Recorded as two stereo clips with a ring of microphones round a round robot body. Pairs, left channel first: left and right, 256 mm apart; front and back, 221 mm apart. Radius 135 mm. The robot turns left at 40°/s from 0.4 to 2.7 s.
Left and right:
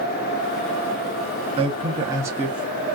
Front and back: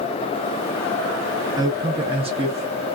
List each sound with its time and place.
1.6 s a man speaking: 130° right, 0.6 m; by 3.0 s 175° right, 0.6 m